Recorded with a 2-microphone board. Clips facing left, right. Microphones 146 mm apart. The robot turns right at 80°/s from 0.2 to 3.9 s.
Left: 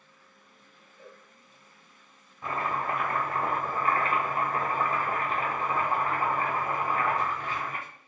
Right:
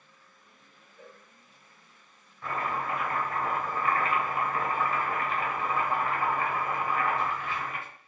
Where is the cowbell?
40° right (ahead or behind), 1.4 m; by 1.2 s 55° right (ahead or behind), 1.4 m.